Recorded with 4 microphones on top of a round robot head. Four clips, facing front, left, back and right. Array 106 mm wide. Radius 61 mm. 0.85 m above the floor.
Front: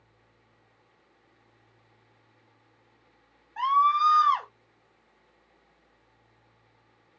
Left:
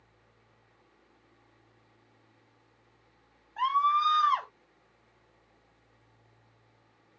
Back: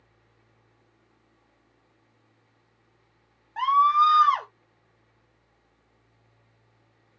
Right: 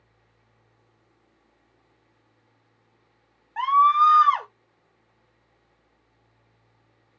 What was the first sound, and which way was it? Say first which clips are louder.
A scream: right 8 dB, back 3 dB; 120° right.